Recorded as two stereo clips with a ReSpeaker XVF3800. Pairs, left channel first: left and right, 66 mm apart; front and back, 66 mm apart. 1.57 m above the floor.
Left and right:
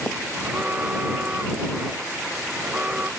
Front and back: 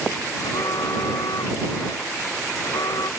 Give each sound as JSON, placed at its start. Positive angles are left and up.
{"t": 0.4, "sound": "an alarm", "azimuth_deg": -20}